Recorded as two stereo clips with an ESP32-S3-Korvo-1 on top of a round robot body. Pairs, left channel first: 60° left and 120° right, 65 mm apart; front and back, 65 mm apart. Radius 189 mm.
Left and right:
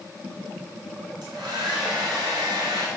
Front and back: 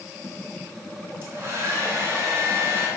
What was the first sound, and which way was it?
A hair dryer, 125° right.